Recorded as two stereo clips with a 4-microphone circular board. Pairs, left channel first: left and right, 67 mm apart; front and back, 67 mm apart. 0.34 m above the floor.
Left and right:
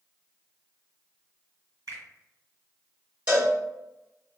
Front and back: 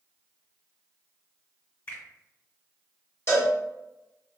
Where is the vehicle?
I don't hear a vehicle.